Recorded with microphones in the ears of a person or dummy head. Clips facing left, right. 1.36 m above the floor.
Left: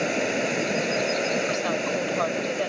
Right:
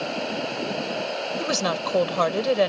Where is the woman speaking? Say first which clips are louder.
Even; 65° right (ahead or behind).